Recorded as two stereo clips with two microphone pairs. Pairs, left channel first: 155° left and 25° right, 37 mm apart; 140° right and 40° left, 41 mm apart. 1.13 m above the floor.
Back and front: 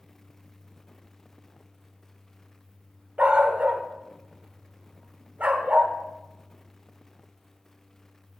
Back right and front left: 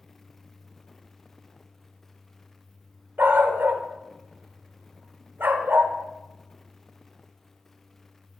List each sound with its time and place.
3.2 s a dog barking: 20° left, 1.3 m